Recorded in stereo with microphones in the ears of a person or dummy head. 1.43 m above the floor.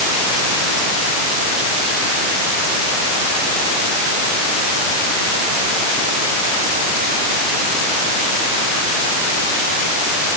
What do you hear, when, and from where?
Only background noise.